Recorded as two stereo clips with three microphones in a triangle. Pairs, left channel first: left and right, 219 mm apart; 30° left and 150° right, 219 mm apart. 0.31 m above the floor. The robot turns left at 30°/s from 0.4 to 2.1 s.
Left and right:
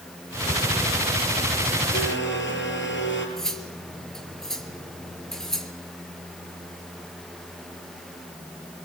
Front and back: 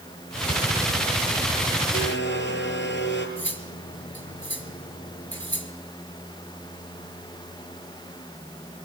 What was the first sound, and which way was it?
A blender, 65° left.